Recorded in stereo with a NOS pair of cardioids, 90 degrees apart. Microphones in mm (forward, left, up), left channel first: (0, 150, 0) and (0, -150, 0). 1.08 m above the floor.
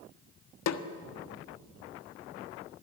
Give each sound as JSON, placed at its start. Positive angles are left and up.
{"t": 0.7, "sound": "a snare drum", "azimuth_deg": 60, "distance_m": 1.4}